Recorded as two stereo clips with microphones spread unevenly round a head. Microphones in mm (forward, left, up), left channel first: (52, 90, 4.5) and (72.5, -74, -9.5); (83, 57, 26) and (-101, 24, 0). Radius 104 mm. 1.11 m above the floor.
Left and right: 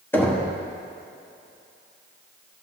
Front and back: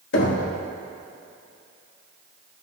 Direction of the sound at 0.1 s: 20° left.